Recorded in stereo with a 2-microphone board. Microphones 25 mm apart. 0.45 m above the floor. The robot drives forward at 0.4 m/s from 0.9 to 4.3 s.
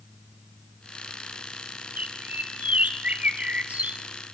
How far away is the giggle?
I don't hear a giggle.